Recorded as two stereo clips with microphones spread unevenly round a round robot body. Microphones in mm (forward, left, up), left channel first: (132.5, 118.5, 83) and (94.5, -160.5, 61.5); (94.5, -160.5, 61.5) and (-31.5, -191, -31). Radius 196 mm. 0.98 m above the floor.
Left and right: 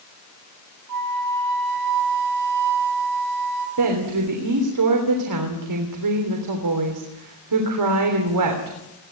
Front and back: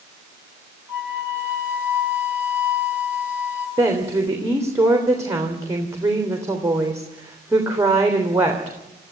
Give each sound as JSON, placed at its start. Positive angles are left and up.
{"t": 0.9, "sound": "a flute", "azimuth_deg": -95, "distance_m": 4.0}
{"t": 3.8, "sound": "a woman speaking", "azimuth_deg": -100, "distance_m": 3.0}